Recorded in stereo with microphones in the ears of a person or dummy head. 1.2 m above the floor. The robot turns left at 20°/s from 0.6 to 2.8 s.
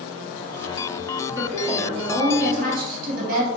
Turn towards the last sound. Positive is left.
turn(degrees=-50)  # may be behind; listen again after turning